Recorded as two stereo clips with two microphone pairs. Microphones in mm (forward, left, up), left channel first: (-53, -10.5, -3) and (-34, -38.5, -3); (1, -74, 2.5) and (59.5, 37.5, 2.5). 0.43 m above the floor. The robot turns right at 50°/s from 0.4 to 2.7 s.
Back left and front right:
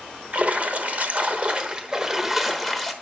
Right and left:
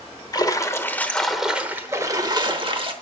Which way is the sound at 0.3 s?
75° right.